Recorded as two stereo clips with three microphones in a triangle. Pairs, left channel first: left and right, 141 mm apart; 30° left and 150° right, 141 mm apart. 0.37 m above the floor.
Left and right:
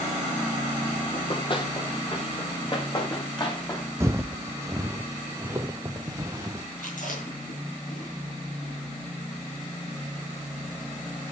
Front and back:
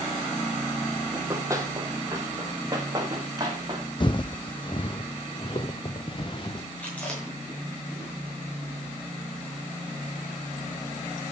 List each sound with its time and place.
1.1 s running footsteps: 140° left, 2.5 m; by 3.9 s 150° left, 3.5 m
4.0 s footsteps: 20° right, 0.7 m
6.8 s chewing: 110° left, 6.5 m